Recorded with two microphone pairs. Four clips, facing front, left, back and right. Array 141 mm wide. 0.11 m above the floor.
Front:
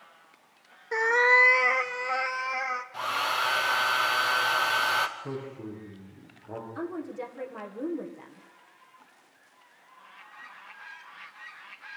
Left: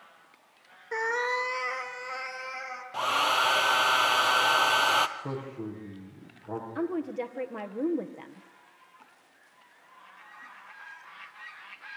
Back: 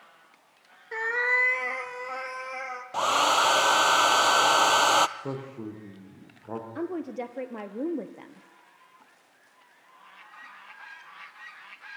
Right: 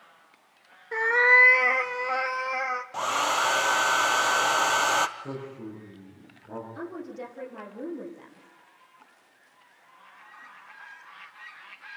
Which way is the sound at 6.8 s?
145° left.